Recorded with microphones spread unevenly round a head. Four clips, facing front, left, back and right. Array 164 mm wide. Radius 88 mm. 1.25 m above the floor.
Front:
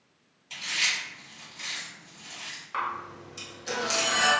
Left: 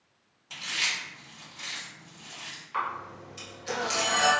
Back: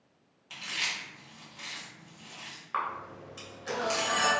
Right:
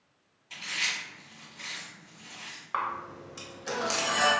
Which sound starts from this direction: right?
A camera shutter, at 2.7 s.